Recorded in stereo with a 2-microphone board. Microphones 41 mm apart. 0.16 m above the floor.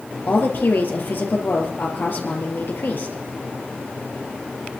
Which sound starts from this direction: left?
A woman speaking, at 0.3 s.